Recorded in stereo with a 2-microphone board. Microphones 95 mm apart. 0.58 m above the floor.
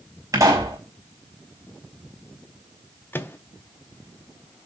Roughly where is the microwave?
Left.